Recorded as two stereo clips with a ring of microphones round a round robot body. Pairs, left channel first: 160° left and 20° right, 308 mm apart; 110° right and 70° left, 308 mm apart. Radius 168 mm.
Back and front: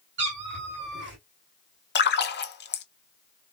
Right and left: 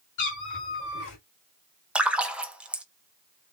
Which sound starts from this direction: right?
A cat meowing, at 0.2 s.